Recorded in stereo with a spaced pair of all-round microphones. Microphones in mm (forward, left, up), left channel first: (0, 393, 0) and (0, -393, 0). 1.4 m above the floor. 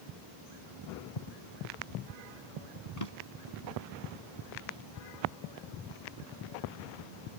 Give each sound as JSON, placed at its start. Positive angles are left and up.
{"t": 3.0, "sound": "a drawer", "side_deg": 55}